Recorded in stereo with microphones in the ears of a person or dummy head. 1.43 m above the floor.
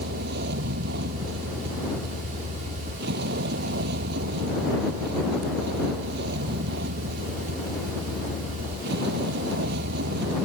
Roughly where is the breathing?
I don't hear breathing.